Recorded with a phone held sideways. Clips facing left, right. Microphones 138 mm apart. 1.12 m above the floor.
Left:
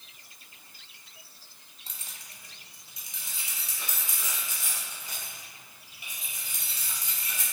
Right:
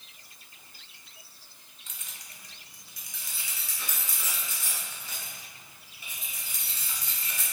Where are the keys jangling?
35° left (ahead or behind), 0.6 m; by 7.4 s 15° left (ahead or behind), 3.5 m.